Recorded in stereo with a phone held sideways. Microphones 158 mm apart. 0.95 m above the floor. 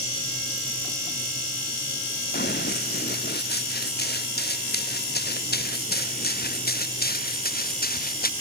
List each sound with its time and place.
2.3 s running footsteps: 85° left; by 8.3 s 65° left (ahead or behind)